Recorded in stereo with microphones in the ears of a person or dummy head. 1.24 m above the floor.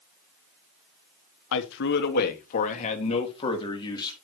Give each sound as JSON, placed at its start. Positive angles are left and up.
{"t": 1.5, "sound": "a man speaking", "side_deg": 70, "distance_m": 2.0}